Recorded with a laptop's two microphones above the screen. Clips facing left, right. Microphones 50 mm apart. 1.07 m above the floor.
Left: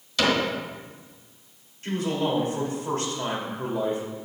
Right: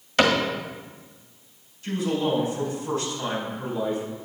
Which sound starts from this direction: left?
A man speaking, at 1.8 s.